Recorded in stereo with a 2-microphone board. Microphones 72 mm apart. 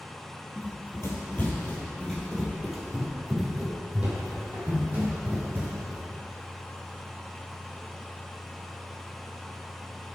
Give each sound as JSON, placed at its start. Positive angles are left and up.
{"t": 0.6, "sound": "running footsteps", "side_deg": 45, "distance_m": 1.6}